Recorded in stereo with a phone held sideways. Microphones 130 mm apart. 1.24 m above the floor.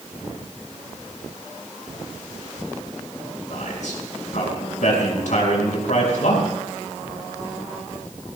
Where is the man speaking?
70° left (ahead or behind), 5 m.